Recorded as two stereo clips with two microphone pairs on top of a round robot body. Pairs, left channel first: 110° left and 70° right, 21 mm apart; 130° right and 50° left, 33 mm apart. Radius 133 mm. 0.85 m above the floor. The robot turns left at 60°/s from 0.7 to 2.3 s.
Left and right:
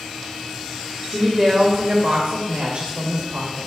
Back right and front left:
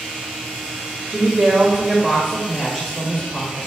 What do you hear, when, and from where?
1.1 s a woman speaking: 20° left, 1.8 m; by 3.7 s 55° right, 1.8 m